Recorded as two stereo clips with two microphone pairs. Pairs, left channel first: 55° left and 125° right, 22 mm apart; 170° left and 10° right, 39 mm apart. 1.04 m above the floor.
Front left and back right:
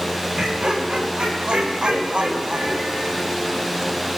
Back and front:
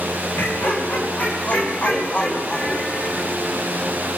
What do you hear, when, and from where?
0.4 s laughter: 175° right, 4 m; by 3.3 s 135° right, 5.5 m